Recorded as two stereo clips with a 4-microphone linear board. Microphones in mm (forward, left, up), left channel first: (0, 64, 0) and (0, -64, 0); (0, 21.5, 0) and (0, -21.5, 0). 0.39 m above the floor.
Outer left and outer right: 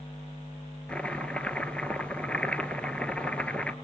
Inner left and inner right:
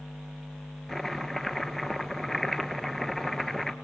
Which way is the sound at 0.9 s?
10° left (ahead or behind).